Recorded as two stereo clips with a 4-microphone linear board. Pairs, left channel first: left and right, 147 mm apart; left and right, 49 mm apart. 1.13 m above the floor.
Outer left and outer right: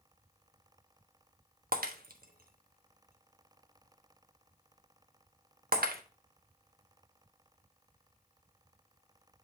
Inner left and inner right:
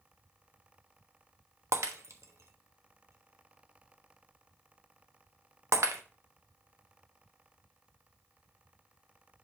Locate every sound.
1.7 s breaking glass: 80° right, 0.9 m